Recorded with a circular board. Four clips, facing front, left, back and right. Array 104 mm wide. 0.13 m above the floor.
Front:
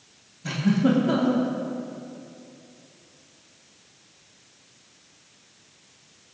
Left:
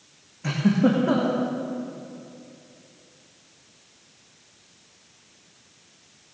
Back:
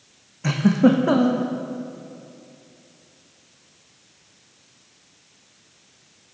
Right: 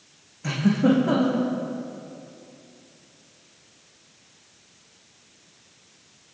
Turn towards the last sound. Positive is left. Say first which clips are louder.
# even, back 5 dB
turn(degrees=175)